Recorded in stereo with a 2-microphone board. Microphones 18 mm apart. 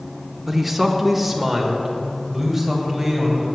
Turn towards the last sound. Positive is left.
turn(degrees=-5)  # may be behind; listen again after turning